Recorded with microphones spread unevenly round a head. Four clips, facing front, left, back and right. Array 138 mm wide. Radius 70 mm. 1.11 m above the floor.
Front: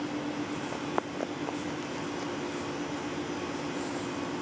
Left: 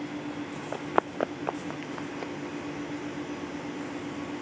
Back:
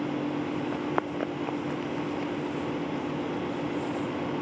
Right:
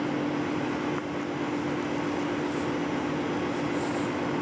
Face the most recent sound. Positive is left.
turn(degrees=100)